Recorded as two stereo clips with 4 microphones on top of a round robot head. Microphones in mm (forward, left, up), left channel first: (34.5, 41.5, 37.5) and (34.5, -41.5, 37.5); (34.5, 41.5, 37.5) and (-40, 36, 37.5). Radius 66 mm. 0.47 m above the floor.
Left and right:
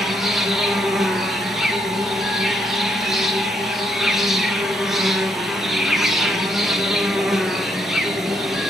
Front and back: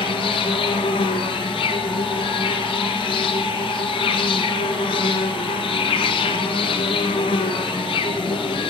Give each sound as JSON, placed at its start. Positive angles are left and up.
{"t": 0.0, "sound": "an insect", "azimuth_deg": -5, "distance_m": 1.5}